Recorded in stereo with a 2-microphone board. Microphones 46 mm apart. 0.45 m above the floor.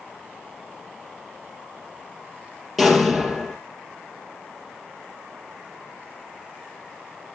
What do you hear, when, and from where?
2.8 s an explosion: 5° left (ahead or behind), 3.5 m